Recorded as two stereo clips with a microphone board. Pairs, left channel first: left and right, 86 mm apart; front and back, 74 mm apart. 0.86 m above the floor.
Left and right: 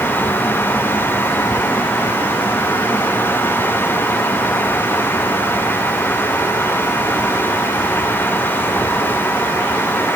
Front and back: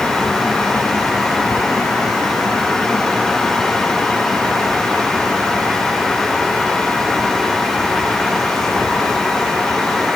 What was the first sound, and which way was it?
Only background noise.